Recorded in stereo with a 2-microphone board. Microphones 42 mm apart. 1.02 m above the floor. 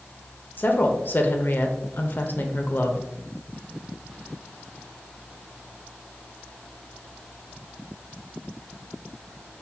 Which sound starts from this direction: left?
A woman speaking, at 0.6 s.